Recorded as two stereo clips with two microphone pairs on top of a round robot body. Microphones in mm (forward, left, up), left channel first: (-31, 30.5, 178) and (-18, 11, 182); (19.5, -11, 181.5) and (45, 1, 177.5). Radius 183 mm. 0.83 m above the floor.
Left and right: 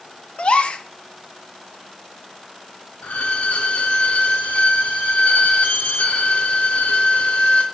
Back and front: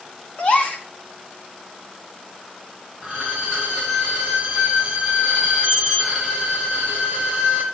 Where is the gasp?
160° left, 1.0 m.